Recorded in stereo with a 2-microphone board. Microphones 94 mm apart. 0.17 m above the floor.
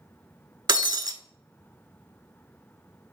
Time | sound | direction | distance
0.7 | breaking glass | 50° right (ahead or behind) | 0.6 m